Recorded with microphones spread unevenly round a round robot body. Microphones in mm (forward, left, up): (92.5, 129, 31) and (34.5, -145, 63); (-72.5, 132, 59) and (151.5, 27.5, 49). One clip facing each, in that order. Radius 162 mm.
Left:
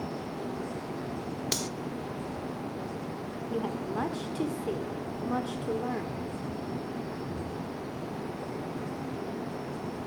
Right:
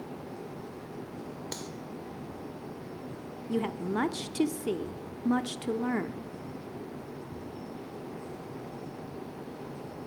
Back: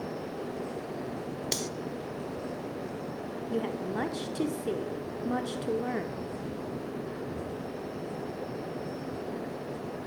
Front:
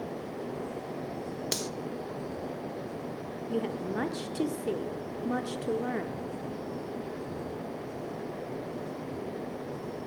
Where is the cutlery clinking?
55° left, 0.6 m.